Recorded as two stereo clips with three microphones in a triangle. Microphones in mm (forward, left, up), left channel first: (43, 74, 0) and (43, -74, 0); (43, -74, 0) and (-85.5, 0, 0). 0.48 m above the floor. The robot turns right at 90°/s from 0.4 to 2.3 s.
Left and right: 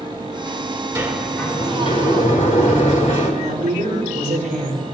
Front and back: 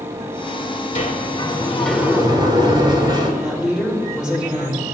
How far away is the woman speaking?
About 5 m.